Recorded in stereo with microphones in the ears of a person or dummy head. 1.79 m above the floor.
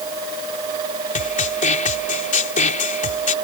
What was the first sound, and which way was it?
A snare drum, 45° left (ahead or behind).